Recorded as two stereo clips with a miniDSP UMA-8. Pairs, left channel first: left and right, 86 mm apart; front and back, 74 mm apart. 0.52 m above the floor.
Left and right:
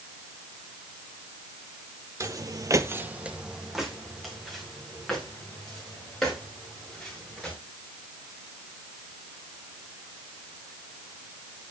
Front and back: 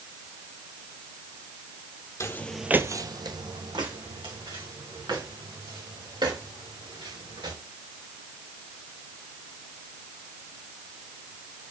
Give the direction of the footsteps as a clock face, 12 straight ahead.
1 o'clock.